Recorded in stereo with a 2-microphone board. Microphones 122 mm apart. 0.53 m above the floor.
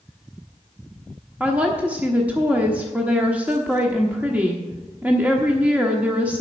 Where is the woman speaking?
10° right (ahead or behind), 1.1 m.